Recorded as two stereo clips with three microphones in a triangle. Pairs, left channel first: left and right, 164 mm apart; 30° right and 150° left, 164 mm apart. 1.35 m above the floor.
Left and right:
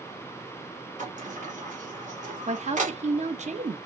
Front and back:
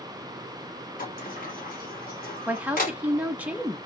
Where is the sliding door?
50° right, 0.9 m.